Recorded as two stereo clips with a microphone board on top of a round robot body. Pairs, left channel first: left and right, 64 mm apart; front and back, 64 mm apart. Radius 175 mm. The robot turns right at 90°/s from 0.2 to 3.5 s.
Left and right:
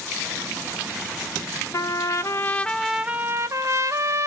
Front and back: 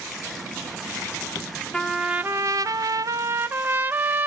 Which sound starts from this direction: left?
A trumpet, at 1.7 s.